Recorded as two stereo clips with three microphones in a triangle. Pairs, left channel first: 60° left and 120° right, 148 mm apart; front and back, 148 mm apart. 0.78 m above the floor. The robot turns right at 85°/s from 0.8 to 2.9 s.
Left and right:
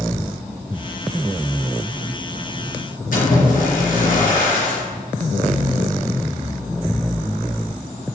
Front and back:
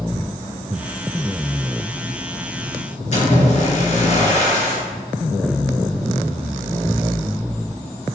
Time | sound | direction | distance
3.1 | a splash | 40° left | 4 m